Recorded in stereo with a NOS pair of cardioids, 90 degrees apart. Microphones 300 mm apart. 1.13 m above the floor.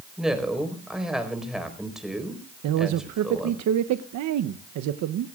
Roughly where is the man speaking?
Right.